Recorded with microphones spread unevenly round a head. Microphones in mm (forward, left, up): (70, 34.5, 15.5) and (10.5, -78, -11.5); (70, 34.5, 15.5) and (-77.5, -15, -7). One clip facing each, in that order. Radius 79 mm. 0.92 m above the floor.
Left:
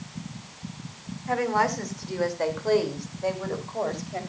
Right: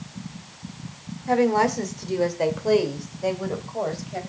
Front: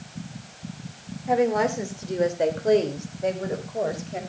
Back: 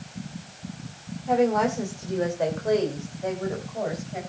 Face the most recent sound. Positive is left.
turn(degrees=-30)